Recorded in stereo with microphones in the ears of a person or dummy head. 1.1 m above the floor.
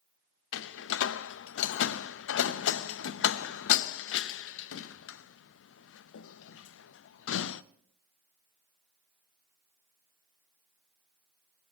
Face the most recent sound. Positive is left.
turn(degrees=80)